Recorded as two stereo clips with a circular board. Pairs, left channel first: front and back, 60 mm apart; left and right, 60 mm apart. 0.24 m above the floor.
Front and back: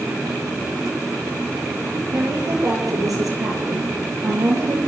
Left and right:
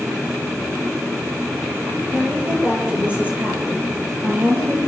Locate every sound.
2.1 s a woman speaking: 160° right, 6.5 m; by 4.9 s 150° right, 6.5 m